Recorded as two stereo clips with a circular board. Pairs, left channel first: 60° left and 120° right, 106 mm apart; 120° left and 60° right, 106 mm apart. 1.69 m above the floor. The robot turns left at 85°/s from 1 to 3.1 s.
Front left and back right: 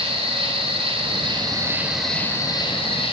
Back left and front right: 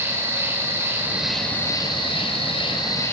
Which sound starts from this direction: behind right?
An insect, at 0.0 s.